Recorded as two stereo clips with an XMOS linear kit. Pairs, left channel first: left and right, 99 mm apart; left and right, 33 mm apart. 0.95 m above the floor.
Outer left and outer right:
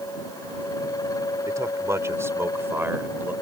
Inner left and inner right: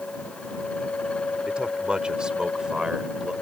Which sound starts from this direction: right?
A man speaking, at 1.5 s.